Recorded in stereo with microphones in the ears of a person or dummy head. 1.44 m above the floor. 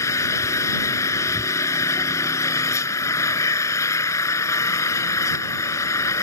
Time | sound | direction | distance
0.0 | an engine running | 15° left (ahead or behind) | ?